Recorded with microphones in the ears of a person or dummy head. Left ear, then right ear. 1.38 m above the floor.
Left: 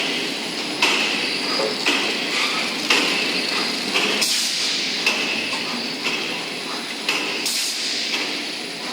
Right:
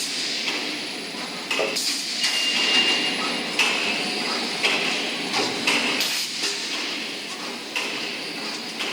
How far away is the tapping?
About 1.3 m.